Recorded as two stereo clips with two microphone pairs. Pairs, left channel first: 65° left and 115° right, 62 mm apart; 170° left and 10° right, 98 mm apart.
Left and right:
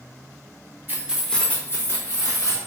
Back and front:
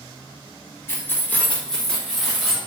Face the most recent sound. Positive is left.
turn(degrees=80)